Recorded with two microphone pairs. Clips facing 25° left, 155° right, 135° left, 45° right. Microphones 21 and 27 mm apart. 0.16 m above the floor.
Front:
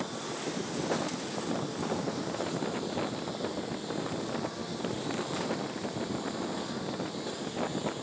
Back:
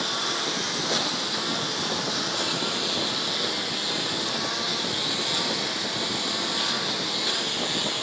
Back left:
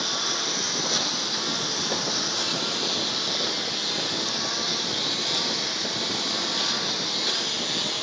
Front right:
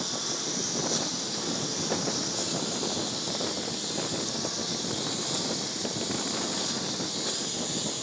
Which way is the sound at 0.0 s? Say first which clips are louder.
Back 10 dB, back left 6 dB; 175° right.